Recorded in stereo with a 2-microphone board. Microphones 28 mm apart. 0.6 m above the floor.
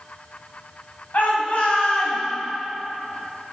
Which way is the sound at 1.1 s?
70° left (ahead or behind).